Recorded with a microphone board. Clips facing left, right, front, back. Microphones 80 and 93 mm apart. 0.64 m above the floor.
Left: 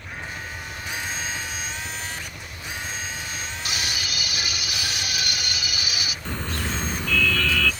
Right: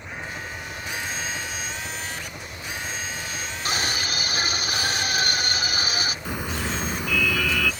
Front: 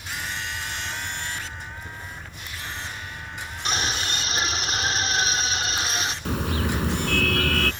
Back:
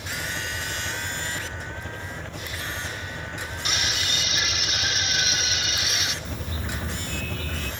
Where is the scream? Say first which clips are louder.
Right 5 dB, front 4 dB; 45° right.